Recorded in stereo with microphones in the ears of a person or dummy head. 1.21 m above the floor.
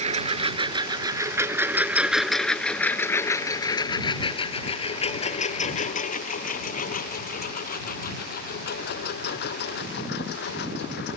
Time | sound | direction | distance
0.0 | a lawn mower | 45° right (ahead or behind) | ?